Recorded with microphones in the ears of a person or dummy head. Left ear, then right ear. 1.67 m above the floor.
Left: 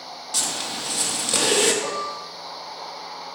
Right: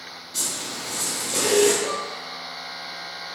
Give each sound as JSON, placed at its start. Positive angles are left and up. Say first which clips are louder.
{"t": 0.3, "sound": "a zipper", "louder": "left 3 dB", "side_deg": 55, "distance_m": 0.9}
{"t": 1.8, "sound": "dishes clattering", "louder": "left 1 dB", "side_deg": 60, "distance_m": 2.0}